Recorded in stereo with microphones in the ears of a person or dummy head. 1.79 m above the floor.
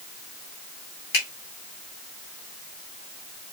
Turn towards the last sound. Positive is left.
turn(degrees=55)  # may be behind; listen again after turning